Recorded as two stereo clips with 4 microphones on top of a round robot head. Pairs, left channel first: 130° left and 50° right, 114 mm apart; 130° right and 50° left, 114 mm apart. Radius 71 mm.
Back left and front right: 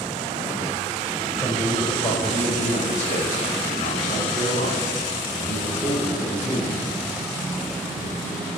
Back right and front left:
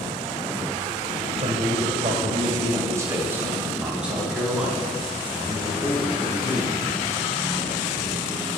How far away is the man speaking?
About 1.8 m.